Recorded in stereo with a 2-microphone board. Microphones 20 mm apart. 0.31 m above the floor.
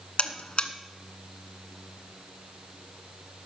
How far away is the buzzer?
About 1.0 m.